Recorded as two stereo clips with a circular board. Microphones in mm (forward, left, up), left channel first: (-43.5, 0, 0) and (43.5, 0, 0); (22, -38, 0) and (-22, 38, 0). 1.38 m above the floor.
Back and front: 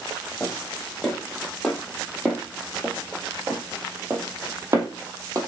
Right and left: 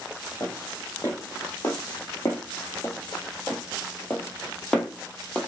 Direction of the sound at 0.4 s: 105° right.